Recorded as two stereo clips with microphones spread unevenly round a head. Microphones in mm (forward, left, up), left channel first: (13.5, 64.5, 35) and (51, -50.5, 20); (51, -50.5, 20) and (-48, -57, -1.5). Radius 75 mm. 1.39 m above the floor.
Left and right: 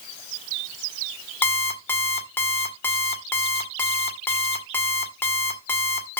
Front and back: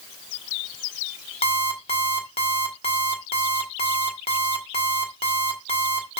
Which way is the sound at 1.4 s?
40° left.